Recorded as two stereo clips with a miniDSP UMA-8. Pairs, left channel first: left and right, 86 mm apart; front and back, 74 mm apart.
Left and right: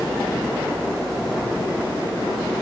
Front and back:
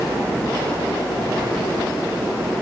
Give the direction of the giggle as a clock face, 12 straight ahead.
I don't hear a giggle.